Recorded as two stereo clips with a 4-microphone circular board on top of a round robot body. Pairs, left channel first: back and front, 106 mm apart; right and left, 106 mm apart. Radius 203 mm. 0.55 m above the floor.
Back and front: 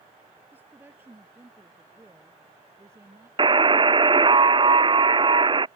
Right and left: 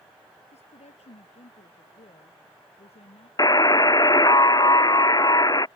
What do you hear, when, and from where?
0.5 s a woman speaking: 75° right; by 3.3 s 65° right
3.4 s a buzzer: 35° right